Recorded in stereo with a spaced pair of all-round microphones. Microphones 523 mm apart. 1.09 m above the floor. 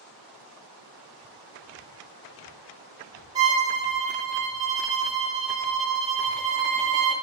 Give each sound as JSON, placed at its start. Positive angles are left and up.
{"t": 3.4, "sound": "a violin", "side_deg": -50, "distance_m": 1.1}